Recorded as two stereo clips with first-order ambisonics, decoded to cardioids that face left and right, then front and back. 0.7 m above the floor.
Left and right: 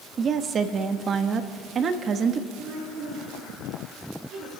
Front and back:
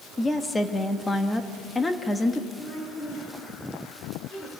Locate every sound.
0.2 s a woman speaking: 65° right, 1.1 m
2.6 s a woman speaking: 45° right, 10 m